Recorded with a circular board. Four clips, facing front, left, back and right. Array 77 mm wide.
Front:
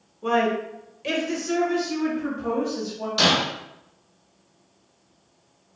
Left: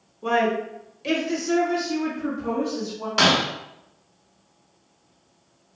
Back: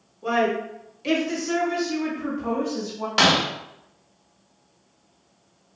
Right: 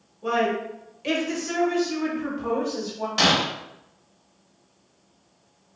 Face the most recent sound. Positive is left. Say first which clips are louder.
# left 2 dB, back 2 dB
turn(degrees=165)